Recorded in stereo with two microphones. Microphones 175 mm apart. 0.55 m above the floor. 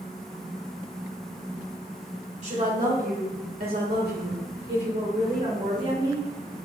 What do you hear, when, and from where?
2.4 s a woman speaking: 45° right (ahead or behind), 1.6 m; by 6.2 s 50° right (ahead or behind), 1.9 m